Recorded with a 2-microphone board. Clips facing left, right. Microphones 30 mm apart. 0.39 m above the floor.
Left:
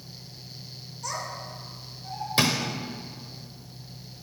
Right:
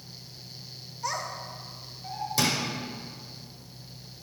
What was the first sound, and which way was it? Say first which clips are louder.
A child speaking: right 1 dB; 25° right (ahead or behind).